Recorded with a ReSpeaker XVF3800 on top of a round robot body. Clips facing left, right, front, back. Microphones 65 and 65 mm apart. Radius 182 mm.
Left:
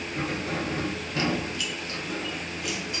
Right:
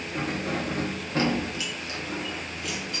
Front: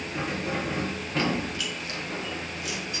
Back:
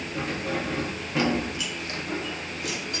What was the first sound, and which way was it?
Keys jangling, 70° right.